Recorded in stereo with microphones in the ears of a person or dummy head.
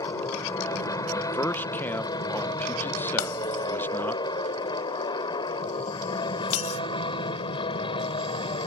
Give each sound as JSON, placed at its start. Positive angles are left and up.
{"t": 0.0, "sound": "an aircraft", "side_deg": 20}
{"t": 1.1, "sound": "a man speaking", "side_deg": 10}
{"t": 3.2, "sound": "breaking glass", "side_deg": 80}